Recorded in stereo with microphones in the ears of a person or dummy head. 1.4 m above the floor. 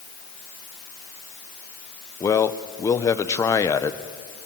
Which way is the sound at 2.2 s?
15° left (ahead or behind).